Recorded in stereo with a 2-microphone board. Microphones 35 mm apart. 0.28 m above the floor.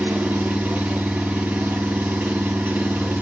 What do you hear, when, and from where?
0.0 s an engine running: 60° right (ahead or behind), 1.0 m